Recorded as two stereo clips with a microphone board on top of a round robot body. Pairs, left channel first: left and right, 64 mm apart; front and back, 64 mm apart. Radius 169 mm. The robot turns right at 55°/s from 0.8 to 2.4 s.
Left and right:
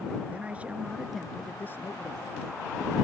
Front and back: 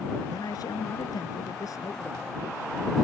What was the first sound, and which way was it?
A man speaking, 20° right.